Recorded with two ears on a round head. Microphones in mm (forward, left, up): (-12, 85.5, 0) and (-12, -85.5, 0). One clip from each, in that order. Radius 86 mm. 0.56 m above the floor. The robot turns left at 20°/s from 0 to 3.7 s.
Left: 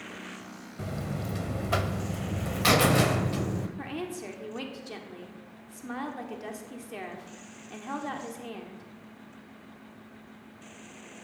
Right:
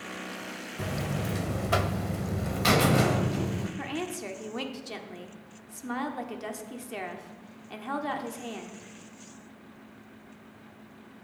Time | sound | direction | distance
0.8 | a buzzer | 155° right | 0.6 m
3.8 | a woman speaking | 15° right (ahead or behind) | 1.2 m